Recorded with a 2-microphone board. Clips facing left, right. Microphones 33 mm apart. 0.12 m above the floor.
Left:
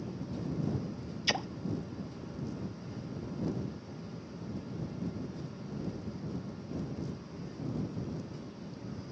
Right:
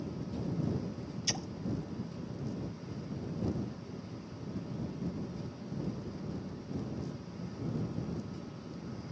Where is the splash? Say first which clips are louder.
Left 7 dB; 40° left (ahead or behind).